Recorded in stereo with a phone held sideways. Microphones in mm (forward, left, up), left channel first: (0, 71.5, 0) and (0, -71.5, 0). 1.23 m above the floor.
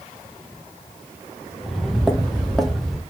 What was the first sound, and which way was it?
Footsteps, centre (ahead or behind).